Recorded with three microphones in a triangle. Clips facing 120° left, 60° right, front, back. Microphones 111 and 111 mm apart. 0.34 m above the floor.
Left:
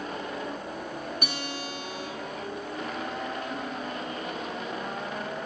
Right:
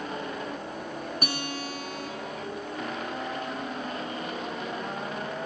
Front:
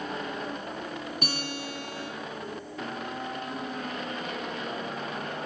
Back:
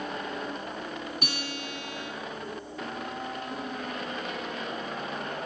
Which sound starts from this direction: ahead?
A guitar, at 1.2 s.